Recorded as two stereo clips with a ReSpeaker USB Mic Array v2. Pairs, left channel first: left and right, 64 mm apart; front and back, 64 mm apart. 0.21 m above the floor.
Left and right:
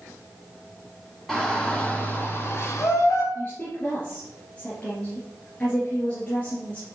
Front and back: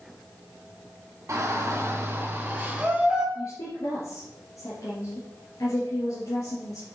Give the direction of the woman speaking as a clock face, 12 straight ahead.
11 o'clock.